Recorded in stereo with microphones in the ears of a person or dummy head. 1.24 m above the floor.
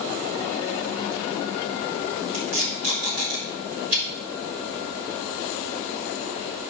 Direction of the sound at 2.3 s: 75° right (ahead or behind).